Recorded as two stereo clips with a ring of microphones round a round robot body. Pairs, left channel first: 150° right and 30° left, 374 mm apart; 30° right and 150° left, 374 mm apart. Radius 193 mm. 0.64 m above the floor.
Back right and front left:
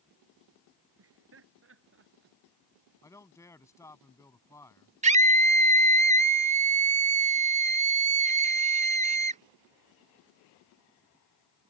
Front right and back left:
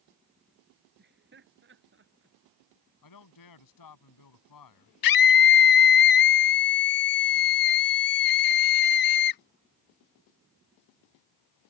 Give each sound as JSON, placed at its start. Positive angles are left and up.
{"t": 1.0, "sound": "laughter", "azimuth_deg": 85}
{"t": 3.0, "sound": "a man speaking", "azimuth_deg": -65}
{"t": 5.0, "sound": "a scream", "azimuth_deg": -40}